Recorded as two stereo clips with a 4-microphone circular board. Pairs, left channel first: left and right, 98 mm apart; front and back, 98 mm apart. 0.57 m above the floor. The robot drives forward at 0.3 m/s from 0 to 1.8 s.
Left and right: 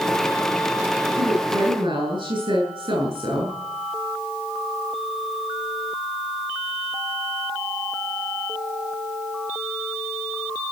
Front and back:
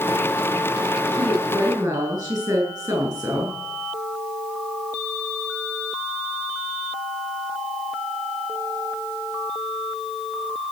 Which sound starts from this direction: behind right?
A woman speaking, at 1.1 s.